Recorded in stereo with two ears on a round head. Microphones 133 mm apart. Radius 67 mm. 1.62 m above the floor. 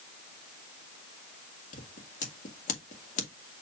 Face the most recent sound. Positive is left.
turn(degrees=55)  # may be behind; listen again after turning